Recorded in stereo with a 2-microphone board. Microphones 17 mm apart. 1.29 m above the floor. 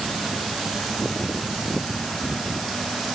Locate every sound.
Only background noise.